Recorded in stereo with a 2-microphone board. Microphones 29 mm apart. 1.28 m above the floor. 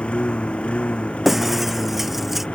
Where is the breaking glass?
10° right (ahead or behind).